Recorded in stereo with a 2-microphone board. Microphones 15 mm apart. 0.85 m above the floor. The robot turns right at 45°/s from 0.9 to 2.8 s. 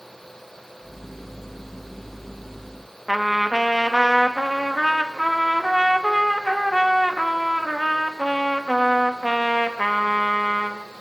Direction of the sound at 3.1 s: 5° right (ahead or behind).